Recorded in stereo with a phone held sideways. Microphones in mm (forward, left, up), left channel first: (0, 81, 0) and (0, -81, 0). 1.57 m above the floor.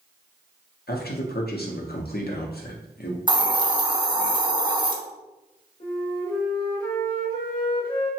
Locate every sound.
0.9 s a man speaking: 75° left (ahead or behind), 0.7 m
3.3 s a hiss: 30° right (ahead or behind), 0.5 m
5.8 s a flute: 35° left (ahead or behind), 1.3 m